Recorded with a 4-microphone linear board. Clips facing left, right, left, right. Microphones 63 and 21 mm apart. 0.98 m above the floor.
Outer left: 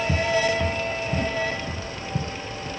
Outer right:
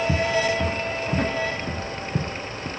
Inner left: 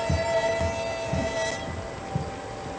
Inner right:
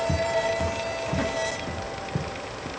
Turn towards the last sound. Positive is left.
turn(degrees=-70)  # may be behind; listen again after turning